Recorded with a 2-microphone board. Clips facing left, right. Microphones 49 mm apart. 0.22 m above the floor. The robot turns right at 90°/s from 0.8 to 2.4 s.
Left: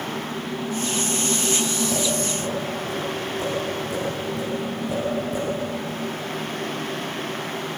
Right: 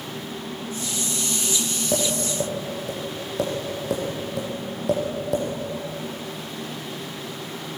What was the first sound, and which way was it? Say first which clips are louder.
Tapping: even; 30° right (ahead or behind).